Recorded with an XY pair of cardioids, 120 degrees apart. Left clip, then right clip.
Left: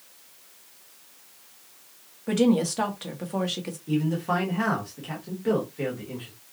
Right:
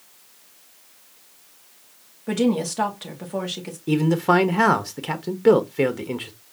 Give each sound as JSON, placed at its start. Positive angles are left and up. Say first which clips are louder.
{"t": 2.3, "sound": "a woman speaking", "louder": "even", "azimuth_deg": 0, "distance_m": 1.9}
{"t": 3.9, "sound": "a man speaking", "louder": "right 8 dB", "azimuth_deg": -65, "distance_m": 1.0}